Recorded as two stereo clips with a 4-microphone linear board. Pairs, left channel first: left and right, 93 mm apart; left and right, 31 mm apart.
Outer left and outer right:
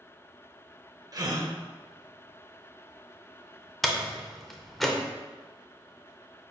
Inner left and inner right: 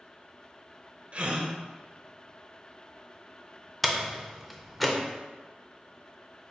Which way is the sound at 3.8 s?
Centre (ahead or behind).